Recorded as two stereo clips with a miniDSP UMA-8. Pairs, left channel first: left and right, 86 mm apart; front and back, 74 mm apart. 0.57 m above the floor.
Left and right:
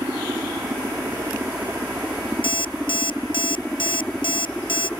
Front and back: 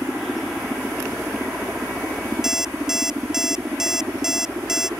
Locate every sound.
0.0 s a helicopter: 95° right; by 5.0 s 155° left
2.4 s an alarm clock: 95° left